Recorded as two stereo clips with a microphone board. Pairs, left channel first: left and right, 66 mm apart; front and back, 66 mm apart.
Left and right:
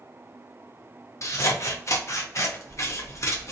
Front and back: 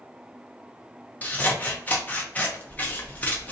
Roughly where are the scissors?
Ahead left.